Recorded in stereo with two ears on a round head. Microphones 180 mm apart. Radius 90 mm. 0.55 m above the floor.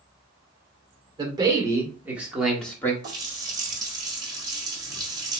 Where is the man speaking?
25° right (ahead or behind), 1.7 m; by 2.9 s 10° left (ahead or behind), 1.1 m.